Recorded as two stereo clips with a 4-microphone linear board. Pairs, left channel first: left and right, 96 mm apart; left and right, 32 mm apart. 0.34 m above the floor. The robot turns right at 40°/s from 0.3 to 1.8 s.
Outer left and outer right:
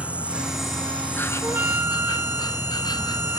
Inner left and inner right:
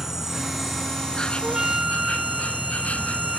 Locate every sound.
0.0 s an insect: 15° right; by 3.4 s 45° left
1.4 s a flute: 25° right (ahead or behind); by 3.4 s 20° right (ahead or behind)